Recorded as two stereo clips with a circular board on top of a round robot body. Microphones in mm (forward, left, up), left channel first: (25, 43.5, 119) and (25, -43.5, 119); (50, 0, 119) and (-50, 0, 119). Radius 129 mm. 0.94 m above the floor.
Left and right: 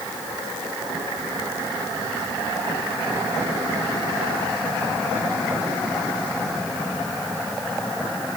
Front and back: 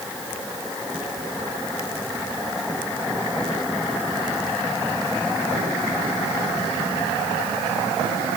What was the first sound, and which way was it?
Only background noise.